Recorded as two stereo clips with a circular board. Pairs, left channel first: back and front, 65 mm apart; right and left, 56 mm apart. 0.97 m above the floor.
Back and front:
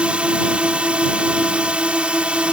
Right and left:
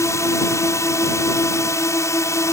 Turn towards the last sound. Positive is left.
turn(degrees=-70)